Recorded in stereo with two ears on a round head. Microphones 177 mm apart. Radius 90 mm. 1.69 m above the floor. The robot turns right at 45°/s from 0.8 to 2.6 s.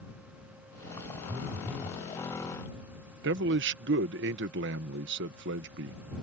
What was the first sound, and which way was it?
A phone buzzing, 25° right.